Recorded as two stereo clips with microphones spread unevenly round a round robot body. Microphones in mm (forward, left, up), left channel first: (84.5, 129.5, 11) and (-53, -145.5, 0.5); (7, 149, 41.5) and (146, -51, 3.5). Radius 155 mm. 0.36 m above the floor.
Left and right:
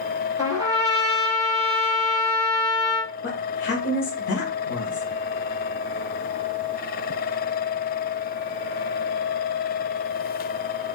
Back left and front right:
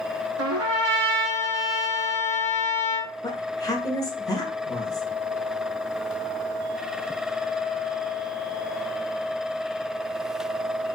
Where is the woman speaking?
45° left, 1.3 m.